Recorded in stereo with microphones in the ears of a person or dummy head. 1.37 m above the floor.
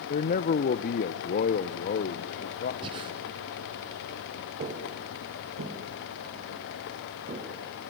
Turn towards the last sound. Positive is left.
turn(degrees=-45)  # may be behind; listen again after turning